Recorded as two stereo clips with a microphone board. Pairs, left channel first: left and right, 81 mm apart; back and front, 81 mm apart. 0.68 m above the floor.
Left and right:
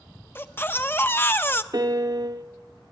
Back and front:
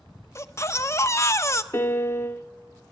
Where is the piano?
125° right, 0.8 m.